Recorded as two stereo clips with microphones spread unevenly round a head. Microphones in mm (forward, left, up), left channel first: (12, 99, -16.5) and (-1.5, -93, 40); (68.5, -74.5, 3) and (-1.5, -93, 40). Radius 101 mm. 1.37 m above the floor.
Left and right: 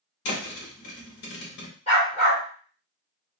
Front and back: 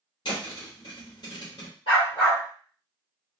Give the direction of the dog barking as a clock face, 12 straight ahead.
11 o'clock.